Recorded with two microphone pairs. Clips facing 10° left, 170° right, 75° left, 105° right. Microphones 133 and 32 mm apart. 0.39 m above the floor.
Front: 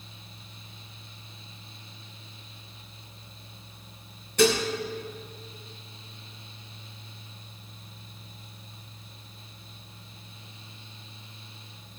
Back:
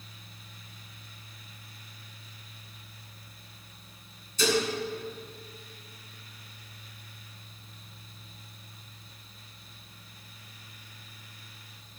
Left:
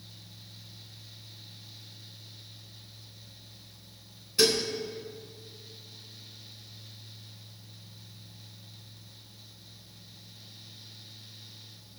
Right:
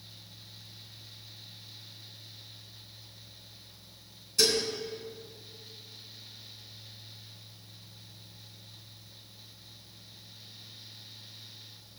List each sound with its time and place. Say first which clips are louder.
4.4 s dishes clattering: front 4 dB, left 2 dB; 10° left, 2.5 m